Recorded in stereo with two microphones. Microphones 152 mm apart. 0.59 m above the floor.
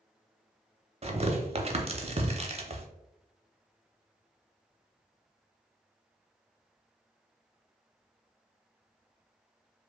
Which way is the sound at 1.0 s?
45° right (ahead or behind).